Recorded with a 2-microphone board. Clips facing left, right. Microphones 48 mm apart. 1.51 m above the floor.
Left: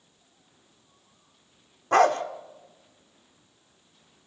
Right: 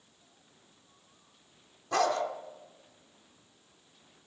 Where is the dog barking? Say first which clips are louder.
Left 8 dB; 45° left (ahead or behind), 1.5 m.